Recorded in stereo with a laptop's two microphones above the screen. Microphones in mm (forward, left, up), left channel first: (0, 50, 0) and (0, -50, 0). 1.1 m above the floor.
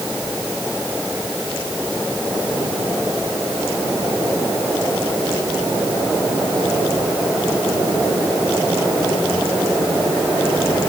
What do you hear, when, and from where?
Only background noise.